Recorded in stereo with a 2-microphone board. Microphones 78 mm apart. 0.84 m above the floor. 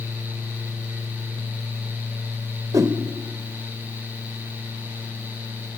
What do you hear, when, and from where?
2.7 s a whoosh: 45° right (ahead or behind), 1.7 m